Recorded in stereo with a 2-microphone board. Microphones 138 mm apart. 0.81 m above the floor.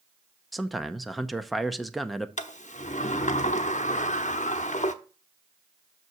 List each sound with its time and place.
0.5 s a man speaking: centre (ahead or behind), 0.6 m
2.4 s a sliding door: 60° left (ahead or behind), 0.7 m